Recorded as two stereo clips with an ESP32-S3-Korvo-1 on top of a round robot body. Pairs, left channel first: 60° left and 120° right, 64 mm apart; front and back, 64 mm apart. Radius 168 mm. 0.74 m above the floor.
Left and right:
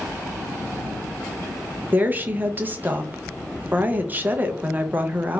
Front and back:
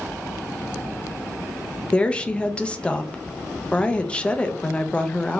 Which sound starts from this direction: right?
A woman speaking, at 1.9 s.